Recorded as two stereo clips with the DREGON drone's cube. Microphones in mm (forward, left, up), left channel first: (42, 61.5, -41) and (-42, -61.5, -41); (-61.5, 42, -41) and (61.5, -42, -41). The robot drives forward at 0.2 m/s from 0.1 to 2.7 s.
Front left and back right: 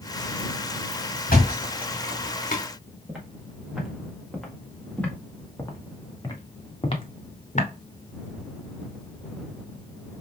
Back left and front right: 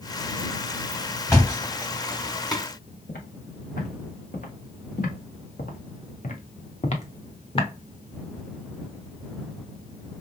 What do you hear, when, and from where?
1.3 s a thud: 75° left, 2.5 m; by 2.6 s 80° left, 2.5 m
3.1 s footsteps: 150° left, 3 m; by 7.7 s 90° left, 1.5 m